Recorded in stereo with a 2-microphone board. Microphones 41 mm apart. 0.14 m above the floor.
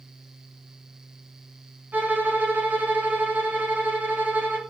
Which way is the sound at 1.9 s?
50° right (ahead or behind).